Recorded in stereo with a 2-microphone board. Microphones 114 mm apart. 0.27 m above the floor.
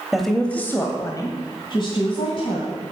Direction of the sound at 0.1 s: Centre (ahead or behind).